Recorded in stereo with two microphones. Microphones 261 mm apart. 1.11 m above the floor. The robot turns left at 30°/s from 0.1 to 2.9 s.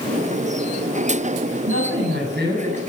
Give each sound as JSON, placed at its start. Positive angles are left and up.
{"t": 1.6, "sound": "a man speaking", "azimuth_deg": -120, "distance_m": 8.5}